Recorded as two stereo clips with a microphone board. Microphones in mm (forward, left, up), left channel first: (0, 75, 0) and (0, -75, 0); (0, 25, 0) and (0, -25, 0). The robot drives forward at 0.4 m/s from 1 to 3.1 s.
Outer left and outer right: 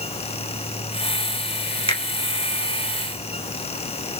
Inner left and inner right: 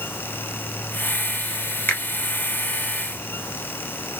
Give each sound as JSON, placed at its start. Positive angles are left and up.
{"t": 1.9, "sound": "a finger snap", "side_deg": 40, "distance_m": 1.5}